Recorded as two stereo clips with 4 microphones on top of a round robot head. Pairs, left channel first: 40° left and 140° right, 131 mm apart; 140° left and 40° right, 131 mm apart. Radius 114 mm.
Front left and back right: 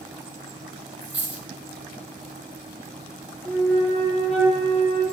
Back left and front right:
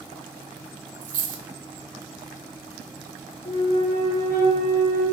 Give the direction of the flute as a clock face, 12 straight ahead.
8 o'clock.